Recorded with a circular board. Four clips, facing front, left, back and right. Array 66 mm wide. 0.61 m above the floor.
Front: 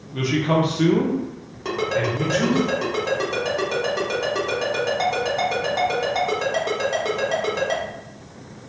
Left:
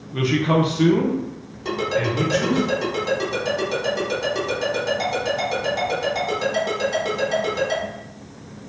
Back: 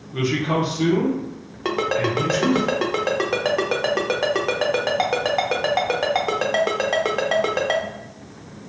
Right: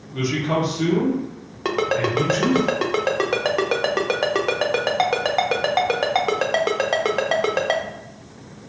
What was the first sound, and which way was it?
A man speaking, 115° left.